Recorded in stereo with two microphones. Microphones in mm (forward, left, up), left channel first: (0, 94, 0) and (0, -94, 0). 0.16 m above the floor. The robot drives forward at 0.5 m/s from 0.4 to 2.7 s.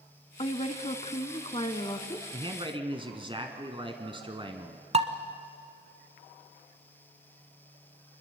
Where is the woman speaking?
35° left (ahead or behind), 1.2 m; by 2.2 s 25° left (ahead or behind), 1.4 m.